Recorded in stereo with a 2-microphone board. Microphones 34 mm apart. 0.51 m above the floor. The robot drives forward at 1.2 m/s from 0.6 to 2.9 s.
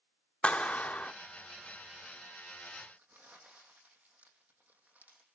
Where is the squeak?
No squeak in this recording.